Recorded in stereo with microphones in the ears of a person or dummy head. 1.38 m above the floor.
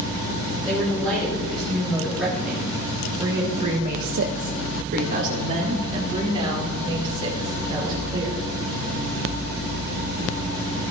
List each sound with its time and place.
0.7 s a woman speaking: 5° left (ahead or behind), 4 m; by 8.4 s 25° right (ahead or behind), 4.5 m